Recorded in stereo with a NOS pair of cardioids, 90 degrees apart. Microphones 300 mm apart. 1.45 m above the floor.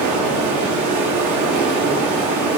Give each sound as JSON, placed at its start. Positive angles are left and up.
{"t": 0.0, "sound": "running water", "azimuth_deg": -65, "distance_m": 1.1}